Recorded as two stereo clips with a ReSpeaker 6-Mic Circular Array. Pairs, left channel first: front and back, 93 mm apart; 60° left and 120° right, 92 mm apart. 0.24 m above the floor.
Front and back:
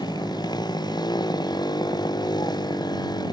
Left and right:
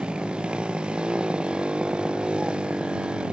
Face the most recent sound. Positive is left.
turn(degrees=-40)